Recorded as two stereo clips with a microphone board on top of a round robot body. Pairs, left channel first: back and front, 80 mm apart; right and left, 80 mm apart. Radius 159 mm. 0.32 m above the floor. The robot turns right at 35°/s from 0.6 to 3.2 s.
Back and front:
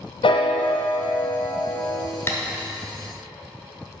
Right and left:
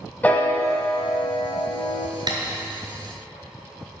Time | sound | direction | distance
0.2 | a piano | 165° right | 0.5 m
2.3 | tapping | 120° left | 1.8 m